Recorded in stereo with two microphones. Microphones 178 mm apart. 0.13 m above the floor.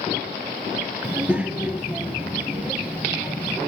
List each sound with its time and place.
1.0 s a child speaking: 10° right (ahead or behind), 1.7 m